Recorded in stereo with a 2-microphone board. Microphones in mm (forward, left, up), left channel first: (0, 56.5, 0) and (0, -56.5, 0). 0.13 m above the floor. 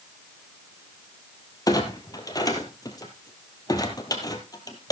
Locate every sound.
1.7 s a clunk: 30° left (ahead or behind), 1.7 m